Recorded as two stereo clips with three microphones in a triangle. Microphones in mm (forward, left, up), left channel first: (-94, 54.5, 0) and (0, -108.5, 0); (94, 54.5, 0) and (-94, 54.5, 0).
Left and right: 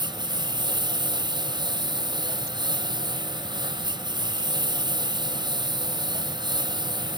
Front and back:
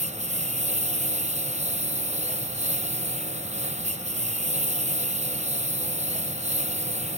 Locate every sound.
0.0 s a lawn mower: 125° right